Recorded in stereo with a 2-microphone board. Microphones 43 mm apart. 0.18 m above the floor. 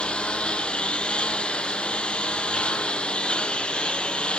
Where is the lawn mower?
25° left (ahead or behind).